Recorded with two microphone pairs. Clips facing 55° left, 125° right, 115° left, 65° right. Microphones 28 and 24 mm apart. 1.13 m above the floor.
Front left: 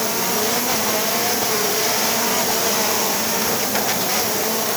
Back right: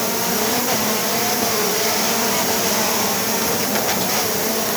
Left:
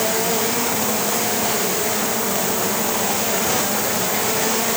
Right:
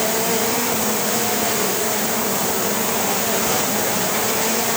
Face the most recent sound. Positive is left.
No sound to turn to.